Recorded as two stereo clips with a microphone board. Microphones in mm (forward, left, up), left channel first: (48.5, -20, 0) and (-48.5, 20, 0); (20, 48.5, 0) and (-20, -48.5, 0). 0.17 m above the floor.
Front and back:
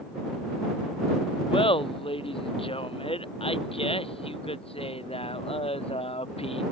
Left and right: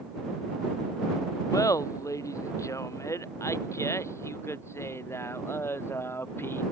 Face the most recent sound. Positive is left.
turn(degrees=0)